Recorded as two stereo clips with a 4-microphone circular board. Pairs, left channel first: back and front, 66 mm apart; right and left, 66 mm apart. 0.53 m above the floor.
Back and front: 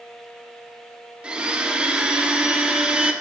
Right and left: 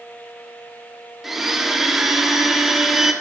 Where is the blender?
15° left, 1.2 m.